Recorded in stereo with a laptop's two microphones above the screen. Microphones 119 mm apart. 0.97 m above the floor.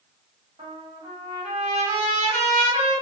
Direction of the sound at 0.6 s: 80° right.